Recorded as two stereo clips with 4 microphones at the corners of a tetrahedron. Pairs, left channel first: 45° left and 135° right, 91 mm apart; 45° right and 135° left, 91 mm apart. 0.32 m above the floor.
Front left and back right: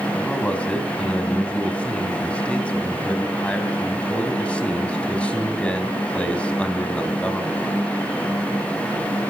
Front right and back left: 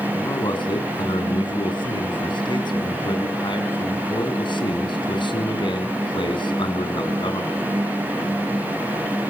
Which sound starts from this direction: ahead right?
A man speaking, at 0.1 s.